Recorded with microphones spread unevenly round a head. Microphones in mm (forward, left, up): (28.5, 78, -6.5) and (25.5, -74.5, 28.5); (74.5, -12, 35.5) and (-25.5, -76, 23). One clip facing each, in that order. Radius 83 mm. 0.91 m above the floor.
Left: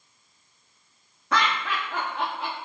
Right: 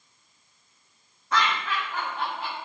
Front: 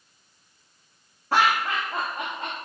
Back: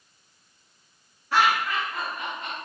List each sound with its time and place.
1.3 s laughter: 90° left, 1.8 m